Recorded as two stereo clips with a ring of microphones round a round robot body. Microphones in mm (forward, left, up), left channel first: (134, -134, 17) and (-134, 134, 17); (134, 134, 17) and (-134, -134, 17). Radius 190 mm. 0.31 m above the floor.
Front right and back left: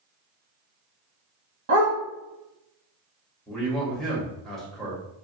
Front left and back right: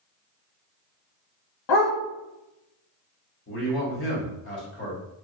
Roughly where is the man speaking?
Ahead left.